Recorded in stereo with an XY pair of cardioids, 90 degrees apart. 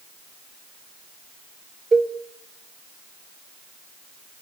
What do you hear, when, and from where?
1.9 s a cowbell: 30° right, 1.4 m